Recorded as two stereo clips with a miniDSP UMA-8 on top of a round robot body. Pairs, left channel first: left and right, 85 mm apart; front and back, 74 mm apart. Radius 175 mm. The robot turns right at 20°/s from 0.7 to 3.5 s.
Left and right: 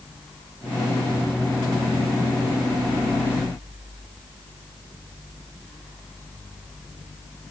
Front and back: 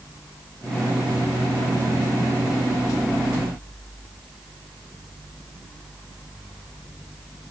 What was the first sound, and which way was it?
Only background noise.